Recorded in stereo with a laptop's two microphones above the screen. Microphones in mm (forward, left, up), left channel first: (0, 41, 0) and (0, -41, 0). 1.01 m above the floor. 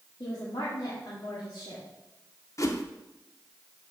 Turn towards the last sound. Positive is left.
turn(degrees=45)  # may be behind; listen again after turning